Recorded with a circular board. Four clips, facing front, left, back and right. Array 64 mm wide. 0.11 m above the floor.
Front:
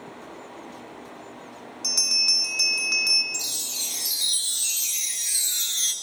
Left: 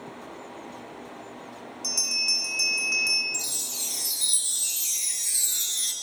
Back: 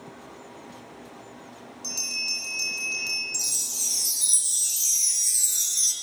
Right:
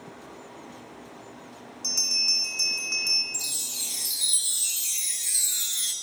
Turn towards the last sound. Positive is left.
turn(degrees=-5)